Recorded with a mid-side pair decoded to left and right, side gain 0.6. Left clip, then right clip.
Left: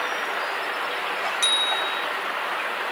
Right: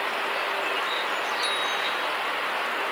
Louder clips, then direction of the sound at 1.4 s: Left 4 dB; 70° left.